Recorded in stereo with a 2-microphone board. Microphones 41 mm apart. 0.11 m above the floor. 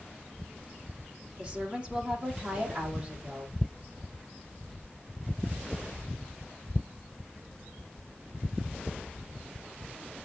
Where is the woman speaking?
20° right (ahead or behind), 5.5 m.